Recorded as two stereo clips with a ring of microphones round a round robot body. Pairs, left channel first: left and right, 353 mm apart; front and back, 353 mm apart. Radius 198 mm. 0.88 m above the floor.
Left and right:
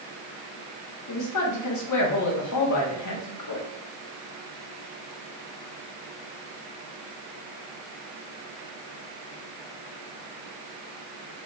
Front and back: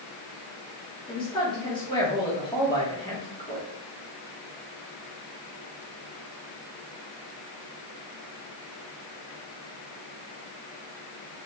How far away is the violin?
No violin in this recording.